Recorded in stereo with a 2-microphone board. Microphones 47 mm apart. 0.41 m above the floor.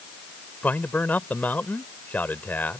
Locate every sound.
0.6 s a man speaking: 40° left (ahead or behind)